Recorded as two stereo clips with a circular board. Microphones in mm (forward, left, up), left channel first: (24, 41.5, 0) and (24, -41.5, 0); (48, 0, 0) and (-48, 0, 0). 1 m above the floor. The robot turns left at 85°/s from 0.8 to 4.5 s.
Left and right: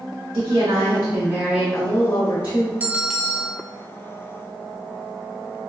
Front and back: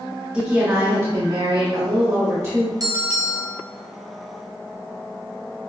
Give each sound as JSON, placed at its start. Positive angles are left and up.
{"t": 0.3, "sound": "a woman speaking", "azimuth_deg": -120, "distance_m": 1.4}
{"t": 2.8, "sound": "a bell", "azimuth_deg": -150, "distance_m": 0.9}